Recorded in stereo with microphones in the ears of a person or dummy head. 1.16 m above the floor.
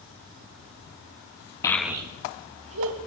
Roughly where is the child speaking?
Centre.